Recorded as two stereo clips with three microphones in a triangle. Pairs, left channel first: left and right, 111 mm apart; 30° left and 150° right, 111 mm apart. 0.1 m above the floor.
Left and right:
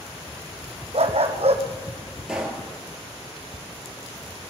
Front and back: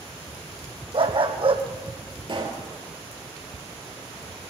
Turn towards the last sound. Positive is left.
turn(degrees=-170)